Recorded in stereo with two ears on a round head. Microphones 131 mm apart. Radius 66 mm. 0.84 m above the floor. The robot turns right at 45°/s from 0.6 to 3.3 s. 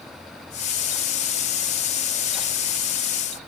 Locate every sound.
Only background noise.